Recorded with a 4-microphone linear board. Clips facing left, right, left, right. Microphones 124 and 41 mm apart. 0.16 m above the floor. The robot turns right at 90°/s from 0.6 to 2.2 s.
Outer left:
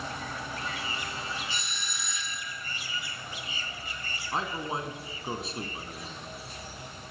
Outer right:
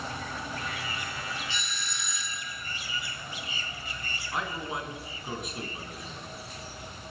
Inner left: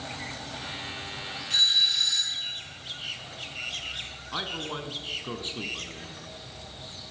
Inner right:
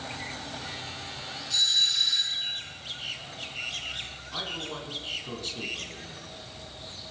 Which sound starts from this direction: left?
A man speaking, at 4.3 s.